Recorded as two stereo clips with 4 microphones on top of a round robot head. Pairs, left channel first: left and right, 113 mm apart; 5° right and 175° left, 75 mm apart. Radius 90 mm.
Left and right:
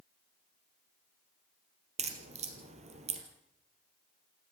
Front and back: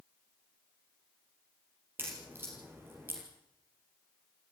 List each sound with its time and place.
2.0 s a crack: 115° right, 3 m